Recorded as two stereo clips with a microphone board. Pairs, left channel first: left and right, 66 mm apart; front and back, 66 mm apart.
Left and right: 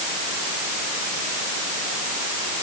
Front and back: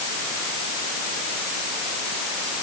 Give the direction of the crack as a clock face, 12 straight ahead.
No crack in this recording.